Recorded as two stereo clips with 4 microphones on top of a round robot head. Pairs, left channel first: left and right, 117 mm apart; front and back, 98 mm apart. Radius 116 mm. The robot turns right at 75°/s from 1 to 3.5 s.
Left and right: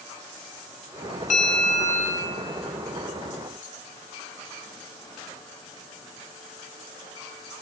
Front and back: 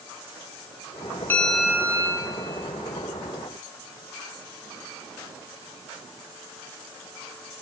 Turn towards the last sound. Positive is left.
turn(degrees=-125)